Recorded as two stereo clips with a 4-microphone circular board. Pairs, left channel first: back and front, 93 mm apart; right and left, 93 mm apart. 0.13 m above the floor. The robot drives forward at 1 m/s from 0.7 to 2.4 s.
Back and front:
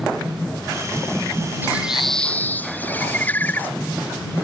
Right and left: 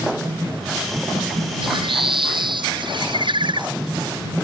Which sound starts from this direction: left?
A bird, at 1.6 s.